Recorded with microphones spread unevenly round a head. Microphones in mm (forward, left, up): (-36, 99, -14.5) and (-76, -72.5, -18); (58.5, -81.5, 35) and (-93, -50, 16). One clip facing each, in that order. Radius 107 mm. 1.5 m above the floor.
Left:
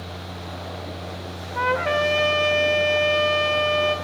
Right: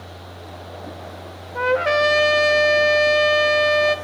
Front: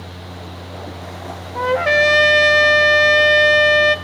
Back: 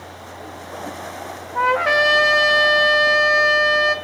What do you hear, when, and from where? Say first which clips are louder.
0.0 s a fan: left 3 dB, front 1 dB; 30° left, 0.7 m
1.6 s a trumpet: right 4 dB, front 2 dB; 60° right, 1.6 m